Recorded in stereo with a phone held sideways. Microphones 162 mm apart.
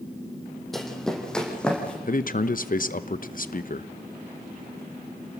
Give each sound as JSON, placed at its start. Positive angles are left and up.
{"t": 0.7, "sound": "running footsteps", "side_deg": 0, "distance_m": 3.5}
{"t": 2.1, "sound": "a man speaking", "side_deg": 60, "distance_m": 0.8}